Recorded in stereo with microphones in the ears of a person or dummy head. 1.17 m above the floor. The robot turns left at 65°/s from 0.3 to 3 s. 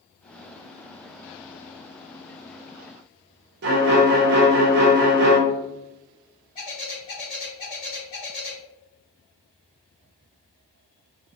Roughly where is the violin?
Right.